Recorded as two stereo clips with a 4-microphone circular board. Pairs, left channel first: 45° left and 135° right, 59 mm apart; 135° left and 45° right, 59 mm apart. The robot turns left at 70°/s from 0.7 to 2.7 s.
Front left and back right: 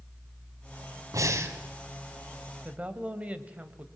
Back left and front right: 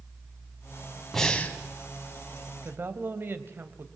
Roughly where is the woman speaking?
Right.